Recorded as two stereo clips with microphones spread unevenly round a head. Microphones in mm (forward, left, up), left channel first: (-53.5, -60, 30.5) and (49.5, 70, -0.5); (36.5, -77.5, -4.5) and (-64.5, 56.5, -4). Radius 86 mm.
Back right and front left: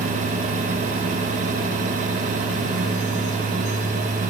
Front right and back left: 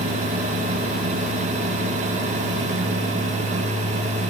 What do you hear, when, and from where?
Only background noise.